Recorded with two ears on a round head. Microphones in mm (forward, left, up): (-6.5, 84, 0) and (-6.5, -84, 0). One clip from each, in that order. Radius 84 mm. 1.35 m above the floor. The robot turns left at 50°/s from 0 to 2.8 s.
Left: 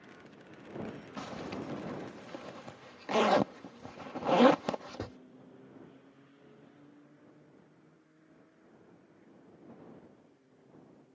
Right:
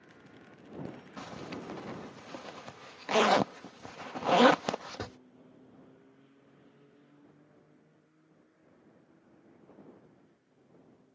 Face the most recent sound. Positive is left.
turn(degrees=-40)  # may be behind; listen again after turning